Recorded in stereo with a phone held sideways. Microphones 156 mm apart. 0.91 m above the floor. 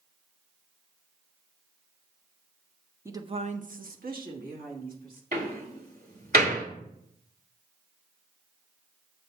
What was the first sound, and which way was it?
A woman speaking, 15° right (ahead or behind).